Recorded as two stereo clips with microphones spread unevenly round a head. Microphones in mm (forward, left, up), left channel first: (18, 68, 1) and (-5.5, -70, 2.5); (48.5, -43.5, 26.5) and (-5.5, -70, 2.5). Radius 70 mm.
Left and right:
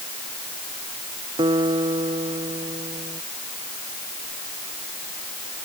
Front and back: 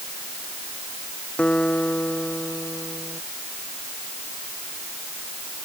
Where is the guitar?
40° right.